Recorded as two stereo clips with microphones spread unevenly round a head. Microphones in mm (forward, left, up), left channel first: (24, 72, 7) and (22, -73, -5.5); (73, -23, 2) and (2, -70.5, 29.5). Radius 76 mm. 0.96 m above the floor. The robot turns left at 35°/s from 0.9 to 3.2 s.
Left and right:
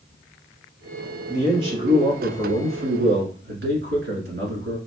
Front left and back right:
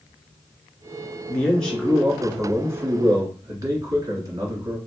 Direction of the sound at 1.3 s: 25° right.